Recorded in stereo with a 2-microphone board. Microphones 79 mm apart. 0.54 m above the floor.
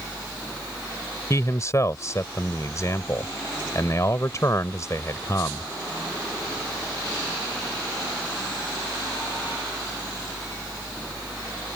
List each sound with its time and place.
1.3 s a man speaking: 40° left (ahead or behind)